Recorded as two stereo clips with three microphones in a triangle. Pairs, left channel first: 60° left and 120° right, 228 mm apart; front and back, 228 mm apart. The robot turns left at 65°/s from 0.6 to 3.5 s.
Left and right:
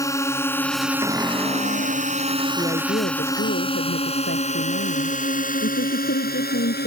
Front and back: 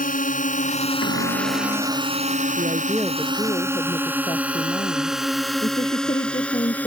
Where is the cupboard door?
165° left; by 2.1 s 95° left.